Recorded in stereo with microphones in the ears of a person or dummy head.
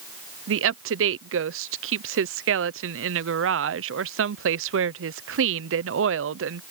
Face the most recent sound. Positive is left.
turn(degrees=-70)  # may be behind; listen again after turning